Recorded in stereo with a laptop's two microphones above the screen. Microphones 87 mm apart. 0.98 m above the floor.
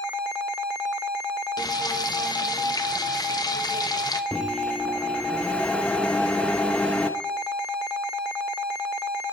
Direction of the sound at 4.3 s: 15° left (ahead or behind).